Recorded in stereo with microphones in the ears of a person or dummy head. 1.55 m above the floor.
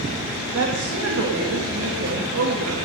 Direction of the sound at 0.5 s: 80° right.